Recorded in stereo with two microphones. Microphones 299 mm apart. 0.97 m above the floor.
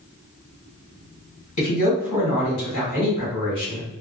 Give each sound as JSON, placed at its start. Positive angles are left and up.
{"t": 1.6, "sound": "a man speaking", "side_deg": 65, "distance_m": 1.3}